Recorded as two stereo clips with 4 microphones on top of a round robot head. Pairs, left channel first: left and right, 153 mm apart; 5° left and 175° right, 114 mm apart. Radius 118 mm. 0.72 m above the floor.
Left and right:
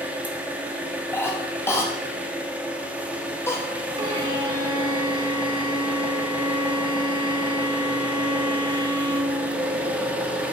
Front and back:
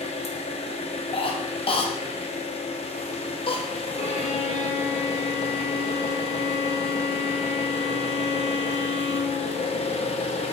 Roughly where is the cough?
Ahead.